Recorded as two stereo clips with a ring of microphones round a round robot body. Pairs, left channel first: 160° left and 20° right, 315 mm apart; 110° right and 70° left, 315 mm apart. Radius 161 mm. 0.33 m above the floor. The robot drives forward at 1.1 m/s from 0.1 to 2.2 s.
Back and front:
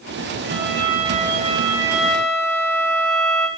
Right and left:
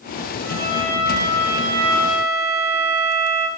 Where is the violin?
30° left, 3 m; by 3.5 s 70° left, 1.9 m.